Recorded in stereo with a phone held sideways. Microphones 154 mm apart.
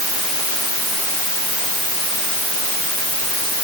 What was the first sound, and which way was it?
Only background noise.